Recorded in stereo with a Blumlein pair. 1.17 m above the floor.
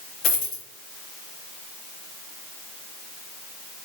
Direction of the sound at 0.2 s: 35° left.